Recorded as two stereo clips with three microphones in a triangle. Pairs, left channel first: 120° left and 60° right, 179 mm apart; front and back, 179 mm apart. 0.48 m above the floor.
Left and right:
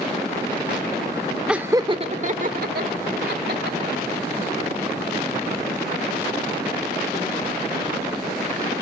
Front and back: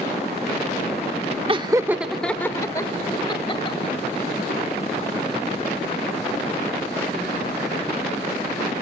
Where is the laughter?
145° right, 0.8 m; by 4.1 s 55° right, 2.5 m.